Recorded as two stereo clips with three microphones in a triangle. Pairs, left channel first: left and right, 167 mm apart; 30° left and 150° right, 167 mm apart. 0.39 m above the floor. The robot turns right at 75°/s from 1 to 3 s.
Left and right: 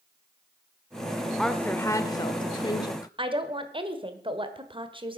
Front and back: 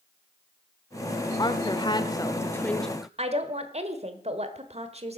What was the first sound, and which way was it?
A woman speaking, 5° left.